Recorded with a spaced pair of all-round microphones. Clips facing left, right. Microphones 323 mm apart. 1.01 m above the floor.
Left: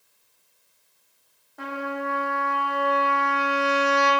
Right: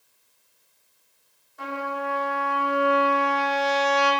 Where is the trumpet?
65° left (ahead or behind), 2 m.